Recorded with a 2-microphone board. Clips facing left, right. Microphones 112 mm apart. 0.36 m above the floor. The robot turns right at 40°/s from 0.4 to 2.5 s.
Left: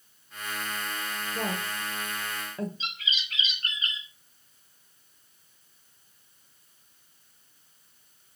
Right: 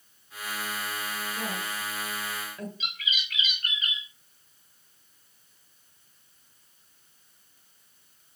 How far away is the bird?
About 5.5 m.